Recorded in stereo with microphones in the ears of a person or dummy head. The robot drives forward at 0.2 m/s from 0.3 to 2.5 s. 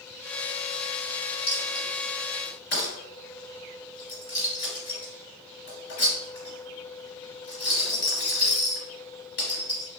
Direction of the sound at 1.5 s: 55° left (ahead or behind).